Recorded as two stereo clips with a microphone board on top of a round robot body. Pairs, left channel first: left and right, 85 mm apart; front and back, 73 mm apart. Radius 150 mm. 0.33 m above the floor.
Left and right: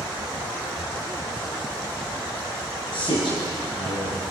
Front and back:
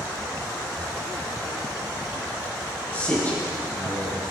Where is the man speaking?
70° left, 6.5 m.